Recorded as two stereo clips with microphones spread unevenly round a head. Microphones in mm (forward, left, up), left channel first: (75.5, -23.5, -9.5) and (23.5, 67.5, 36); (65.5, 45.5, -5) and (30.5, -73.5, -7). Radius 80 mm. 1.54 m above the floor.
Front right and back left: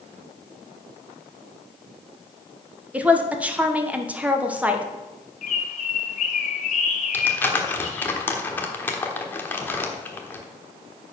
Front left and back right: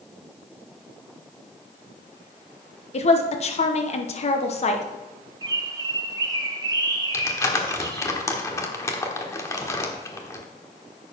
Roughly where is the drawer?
No drawer in this recording.